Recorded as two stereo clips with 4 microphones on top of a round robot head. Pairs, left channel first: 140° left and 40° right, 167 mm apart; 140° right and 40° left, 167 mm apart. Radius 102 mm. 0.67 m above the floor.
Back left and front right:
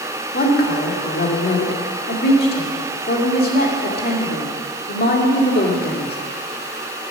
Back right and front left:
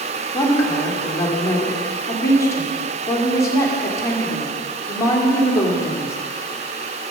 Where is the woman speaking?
150° left, 2.5 m.